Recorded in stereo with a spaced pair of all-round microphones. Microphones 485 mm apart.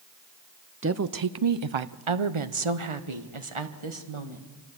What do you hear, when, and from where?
0.8 s a woman speaking: 25° right (ahead or behind), 0.5 m; by 4.5 s 75° right (ahead or behind), 1.9 m